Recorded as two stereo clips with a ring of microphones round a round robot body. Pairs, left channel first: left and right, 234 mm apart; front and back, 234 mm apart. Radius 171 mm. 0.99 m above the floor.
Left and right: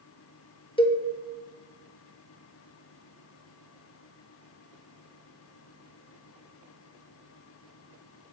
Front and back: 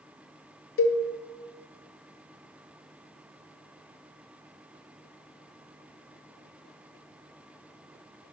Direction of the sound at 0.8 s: 20° left.